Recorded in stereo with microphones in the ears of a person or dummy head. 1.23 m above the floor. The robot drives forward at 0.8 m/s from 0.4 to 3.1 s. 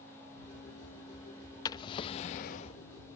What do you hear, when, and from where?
1.6 s a drawer: 25° left (ahead or behind); by 2.8 s 30° left (ahead or behind)